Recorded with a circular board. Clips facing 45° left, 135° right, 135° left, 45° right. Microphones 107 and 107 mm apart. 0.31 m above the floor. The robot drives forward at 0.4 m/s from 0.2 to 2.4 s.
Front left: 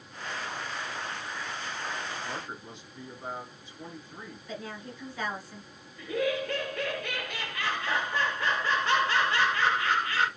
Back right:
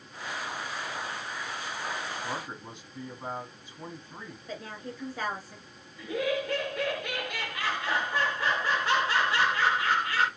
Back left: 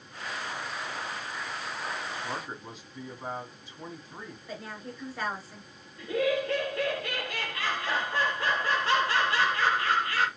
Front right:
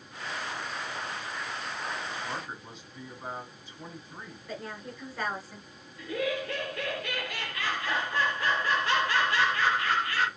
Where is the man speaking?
170° right, 2 m.